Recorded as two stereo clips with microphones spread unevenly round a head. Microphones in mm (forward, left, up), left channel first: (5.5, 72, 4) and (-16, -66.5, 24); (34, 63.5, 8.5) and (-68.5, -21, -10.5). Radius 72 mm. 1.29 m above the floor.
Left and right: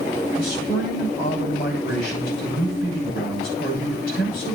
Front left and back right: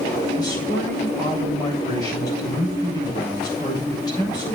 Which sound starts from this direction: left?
A man speaking, at 0.4 s.